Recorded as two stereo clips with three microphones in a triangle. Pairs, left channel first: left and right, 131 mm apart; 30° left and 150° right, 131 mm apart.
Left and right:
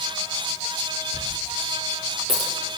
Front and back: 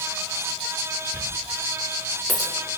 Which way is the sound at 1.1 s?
45° right.